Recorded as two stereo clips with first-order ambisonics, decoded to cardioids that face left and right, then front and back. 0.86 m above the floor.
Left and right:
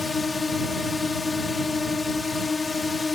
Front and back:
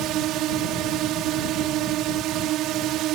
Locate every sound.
0.0 s a drone: 165° left